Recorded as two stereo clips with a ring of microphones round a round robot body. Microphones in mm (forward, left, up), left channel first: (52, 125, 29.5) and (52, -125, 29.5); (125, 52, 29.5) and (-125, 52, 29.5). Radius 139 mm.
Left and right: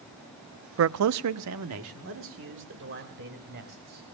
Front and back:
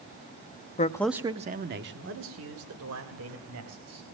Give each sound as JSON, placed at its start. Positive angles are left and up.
{"t": 0.8, "sound": "a man speaking", "azimuth_deg": -60, "distance_m": 0.7}